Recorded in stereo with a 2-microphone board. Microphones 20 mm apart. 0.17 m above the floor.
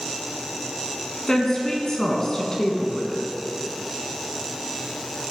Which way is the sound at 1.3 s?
35° left (ahead or behind).